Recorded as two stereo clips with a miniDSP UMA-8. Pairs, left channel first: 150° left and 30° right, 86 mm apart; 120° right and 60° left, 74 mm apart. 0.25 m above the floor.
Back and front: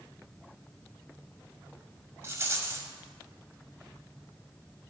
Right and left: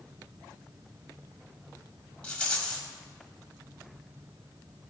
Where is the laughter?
I don't hear laughter.